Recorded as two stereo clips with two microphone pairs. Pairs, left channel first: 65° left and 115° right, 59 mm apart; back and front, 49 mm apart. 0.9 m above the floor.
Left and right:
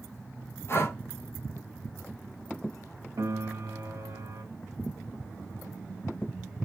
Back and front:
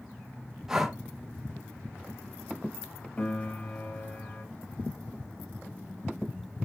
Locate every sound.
0.7 s breathing: 75° left, 1.1 m
3.2 s a piano: 130° right, 0.9 m